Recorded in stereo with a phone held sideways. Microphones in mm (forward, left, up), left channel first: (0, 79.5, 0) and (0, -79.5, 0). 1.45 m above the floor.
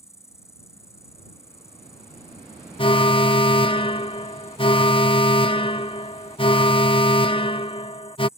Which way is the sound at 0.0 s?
20° left (ahead or behind).